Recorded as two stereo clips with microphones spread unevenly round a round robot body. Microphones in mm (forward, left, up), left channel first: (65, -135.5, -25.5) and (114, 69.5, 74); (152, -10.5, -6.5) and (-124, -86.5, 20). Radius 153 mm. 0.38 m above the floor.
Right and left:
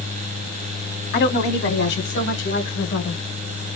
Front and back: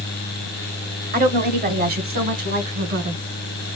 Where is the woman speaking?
105° right, 2 m.